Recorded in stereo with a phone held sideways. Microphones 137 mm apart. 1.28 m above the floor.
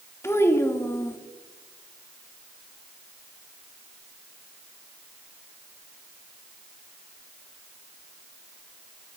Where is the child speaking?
20° left (ahead or behind), 1.4 m.